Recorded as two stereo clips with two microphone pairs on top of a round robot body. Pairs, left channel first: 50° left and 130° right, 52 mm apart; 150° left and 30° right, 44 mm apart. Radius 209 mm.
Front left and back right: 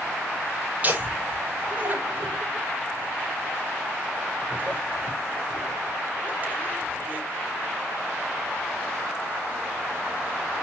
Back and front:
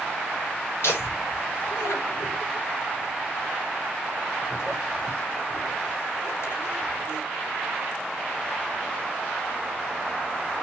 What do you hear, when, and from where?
0.8 s laughter: 170° left, 4.5 m